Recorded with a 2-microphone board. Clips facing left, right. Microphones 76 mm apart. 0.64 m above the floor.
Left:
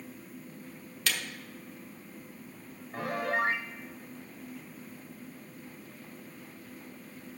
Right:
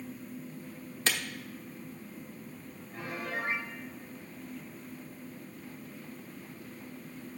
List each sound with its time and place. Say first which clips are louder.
1.1 s a camera shutter: right 2 dB; 30° right (ahead or behind), 1.1 m
2.9 s a piano: left 7 dB; 65° left (ahead or behind), 0.6 m